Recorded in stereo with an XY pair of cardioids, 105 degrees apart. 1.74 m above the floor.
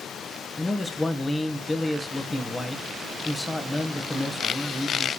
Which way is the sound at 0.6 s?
20° left.